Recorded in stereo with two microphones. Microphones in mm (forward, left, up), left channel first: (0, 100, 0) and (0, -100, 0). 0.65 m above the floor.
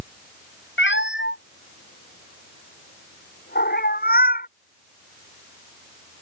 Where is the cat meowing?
65° left (ahead or behind); by 4.5 s 45° left (ahead or behind).